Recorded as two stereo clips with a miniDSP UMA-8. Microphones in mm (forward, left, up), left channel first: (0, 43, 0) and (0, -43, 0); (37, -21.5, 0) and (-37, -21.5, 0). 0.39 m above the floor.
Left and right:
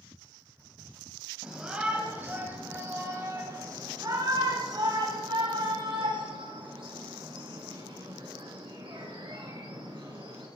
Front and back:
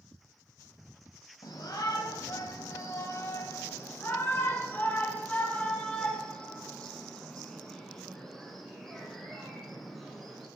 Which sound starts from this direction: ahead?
A shout, at 1.4 s.